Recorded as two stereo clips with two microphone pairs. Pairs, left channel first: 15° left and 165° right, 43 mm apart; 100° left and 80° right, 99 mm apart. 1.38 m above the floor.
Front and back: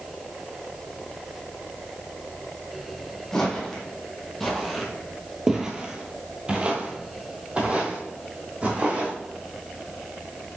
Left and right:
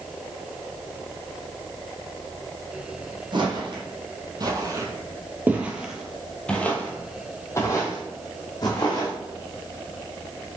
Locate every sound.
3.3 s footsteps: 65° right, 2.5 m; by 9.1 s 140° left, 3 m